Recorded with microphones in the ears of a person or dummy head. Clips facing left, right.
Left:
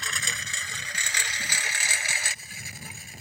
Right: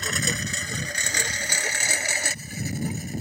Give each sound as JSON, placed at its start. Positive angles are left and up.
{"t": 0.0, "sound": "a lawn mower", "side_deg": -40}